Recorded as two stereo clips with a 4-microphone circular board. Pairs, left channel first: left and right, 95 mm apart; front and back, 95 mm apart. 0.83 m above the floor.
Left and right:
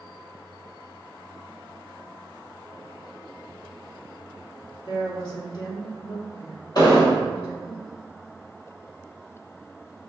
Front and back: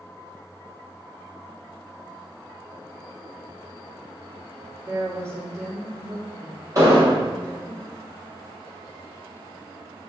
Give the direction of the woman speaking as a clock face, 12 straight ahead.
8 o'clock.